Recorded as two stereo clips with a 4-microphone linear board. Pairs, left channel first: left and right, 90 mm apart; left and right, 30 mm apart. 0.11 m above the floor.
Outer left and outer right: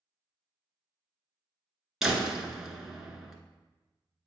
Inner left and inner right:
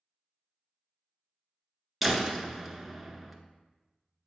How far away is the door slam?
About 0.8 m.